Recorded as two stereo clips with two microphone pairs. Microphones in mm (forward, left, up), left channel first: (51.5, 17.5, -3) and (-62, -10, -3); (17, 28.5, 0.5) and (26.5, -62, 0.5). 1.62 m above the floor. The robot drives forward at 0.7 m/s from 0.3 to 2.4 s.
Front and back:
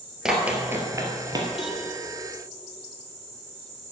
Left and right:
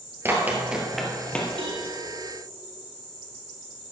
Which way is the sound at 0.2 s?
90° right.